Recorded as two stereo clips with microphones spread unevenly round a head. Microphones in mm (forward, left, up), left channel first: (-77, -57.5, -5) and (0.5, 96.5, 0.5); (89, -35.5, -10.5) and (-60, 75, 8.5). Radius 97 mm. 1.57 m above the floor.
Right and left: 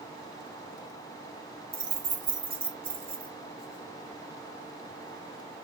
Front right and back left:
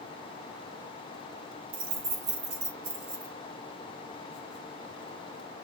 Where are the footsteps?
No footsteps in this recording.